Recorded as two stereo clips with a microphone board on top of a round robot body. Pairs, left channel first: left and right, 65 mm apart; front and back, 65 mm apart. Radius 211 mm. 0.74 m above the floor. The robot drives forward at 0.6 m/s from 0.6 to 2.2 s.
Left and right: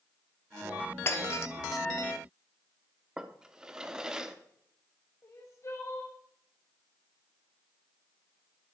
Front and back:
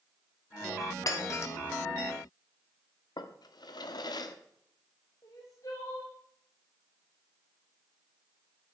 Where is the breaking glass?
40° left, 1.4 m; by 1.5 s 45° left, 1.2 m.